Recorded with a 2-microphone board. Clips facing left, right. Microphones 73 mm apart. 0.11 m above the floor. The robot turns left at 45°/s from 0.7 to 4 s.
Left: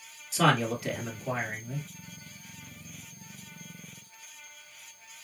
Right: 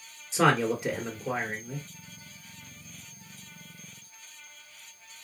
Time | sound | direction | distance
0.3 | a man speaking | 110° right | 1.8 m